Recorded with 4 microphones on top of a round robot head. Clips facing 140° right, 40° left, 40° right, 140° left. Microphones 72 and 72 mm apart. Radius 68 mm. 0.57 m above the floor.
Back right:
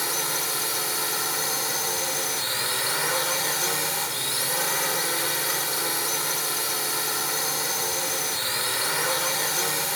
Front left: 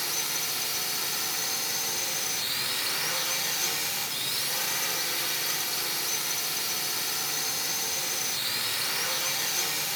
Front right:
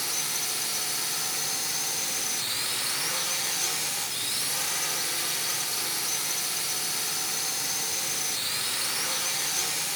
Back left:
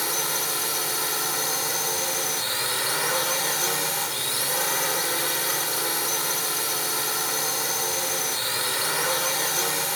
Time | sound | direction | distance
0.0 | a drone | 175° left | ?